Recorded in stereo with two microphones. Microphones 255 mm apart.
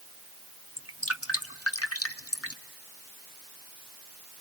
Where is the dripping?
70° left (ahead or behind), 1.2 m.